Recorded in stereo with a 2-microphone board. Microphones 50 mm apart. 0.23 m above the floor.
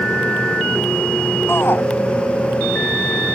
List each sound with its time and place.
1.5 s a shout: 50° left (ahead or behind)